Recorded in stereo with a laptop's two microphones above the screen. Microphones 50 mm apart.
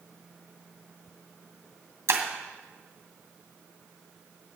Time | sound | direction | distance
2.1 | breaking glass | 70° right (ahead or behind) | 2.5 m